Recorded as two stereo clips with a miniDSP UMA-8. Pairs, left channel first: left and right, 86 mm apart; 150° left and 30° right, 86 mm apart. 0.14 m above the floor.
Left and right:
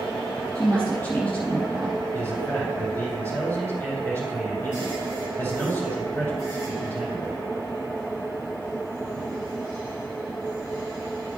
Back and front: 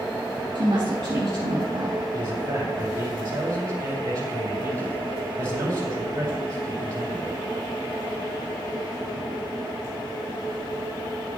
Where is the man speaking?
20° left, 4.5 m.